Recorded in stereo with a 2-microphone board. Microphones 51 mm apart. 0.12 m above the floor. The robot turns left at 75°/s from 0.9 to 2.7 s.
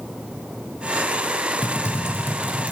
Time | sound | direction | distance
1.6 | typing on a keyboard | 120° left | 1.8 m